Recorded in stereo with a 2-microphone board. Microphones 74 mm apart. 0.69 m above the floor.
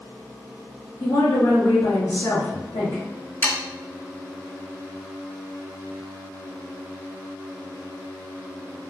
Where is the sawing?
25° left (ahead or behind), 0.6 m.